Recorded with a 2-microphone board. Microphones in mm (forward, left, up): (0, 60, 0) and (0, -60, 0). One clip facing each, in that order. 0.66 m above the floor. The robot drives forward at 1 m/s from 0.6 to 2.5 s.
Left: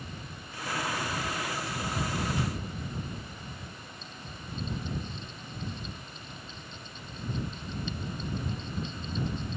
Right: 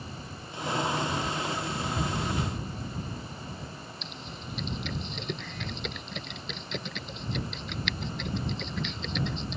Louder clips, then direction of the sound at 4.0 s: Right 3 dB; 90° right.